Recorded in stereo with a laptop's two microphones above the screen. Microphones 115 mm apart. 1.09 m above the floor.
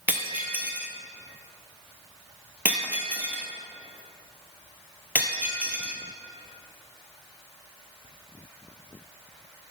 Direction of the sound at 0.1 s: 15° right (ahead or behind).